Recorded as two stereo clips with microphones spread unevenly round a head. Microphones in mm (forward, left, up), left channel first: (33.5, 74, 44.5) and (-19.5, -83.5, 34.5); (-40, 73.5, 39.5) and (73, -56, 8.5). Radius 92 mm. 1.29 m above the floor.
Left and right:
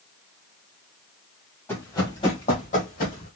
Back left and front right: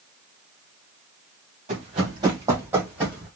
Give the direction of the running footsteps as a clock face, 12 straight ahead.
12 o'clock.